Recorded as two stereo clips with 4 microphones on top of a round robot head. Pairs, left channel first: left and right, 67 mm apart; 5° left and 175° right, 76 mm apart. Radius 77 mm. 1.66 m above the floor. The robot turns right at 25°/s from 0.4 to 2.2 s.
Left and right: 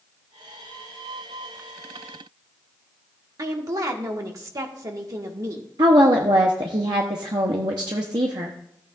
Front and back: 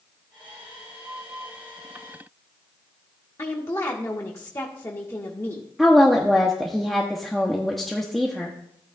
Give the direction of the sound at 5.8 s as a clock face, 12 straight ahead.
3 o'clock.